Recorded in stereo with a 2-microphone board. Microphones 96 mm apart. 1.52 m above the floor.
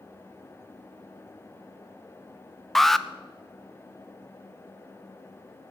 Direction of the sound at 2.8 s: Centre (ahead or behind).